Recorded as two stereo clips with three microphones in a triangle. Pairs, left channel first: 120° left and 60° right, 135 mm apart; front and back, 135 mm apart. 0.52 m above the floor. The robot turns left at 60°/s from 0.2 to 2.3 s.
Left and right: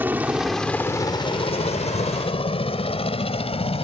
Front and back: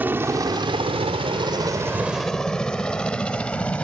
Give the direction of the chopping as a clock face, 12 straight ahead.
I don't hear chopping.